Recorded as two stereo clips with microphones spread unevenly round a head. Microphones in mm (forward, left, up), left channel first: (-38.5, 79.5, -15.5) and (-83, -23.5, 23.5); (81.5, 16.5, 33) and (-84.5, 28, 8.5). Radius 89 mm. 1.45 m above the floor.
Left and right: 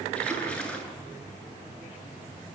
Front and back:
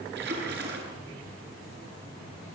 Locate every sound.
0.1 s a splash: 150° left, 8 m